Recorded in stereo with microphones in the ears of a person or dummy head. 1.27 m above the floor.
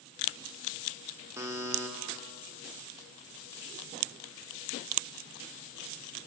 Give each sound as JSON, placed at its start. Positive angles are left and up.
{"t": 1.4, "sound": "a buzzer", "side_deg": -10, "distance_m": 0.5}